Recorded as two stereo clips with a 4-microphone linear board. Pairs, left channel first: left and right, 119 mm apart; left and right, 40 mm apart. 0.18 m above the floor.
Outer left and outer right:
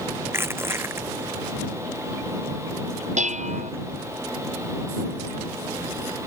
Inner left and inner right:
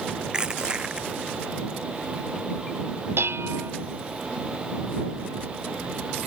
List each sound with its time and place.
0.3 s crushing: 20° right (ahead or behind)
3.2 s dishes clattering: 80° right